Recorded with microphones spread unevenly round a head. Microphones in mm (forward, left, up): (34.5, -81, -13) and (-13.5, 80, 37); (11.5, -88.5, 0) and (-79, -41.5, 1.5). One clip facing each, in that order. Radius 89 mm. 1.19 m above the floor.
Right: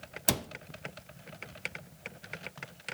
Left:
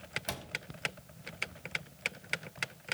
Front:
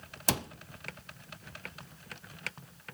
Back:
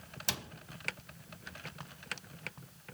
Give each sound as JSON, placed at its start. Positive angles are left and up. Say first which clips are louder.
{"t": 0.3, "sound": "a cupboard door", "louder": "right 10 dB, front 9 dB", "azimuth_deg": -45, "distance_m": 0.5}